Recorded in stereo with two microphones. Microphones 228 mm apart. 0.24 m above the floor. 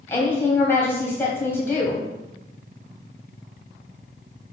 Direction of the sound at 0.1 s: 10° left (ahead or behind).